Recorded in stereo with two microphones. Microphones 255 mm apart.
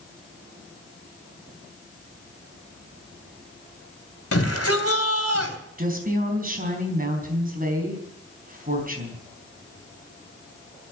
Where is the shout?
65° left (ahead or behind), 3 m.